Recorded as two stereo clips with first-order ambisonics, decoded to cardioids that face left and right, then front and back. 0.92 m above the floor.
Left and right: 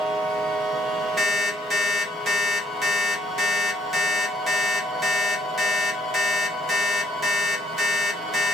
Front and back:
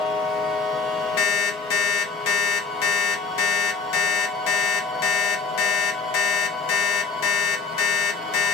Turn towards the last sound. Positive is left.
turn(degrees=-5)